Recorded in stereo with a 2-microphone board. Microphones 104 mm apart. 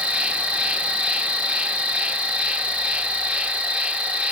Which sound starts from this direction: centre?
An insect, at 0.0 s.